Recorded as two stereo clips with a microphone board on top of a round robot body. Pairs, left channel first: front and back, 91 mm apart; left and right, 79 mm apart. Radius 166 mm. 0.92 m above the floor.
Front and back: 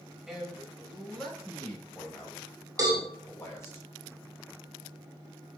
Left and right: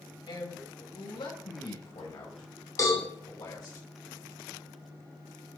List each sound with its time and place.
0.3 s a man speaking: 95° left, 5 m; by 3.8 s 55° left, 4.5 m
2.8 s a cowbell: 130° left, 4 m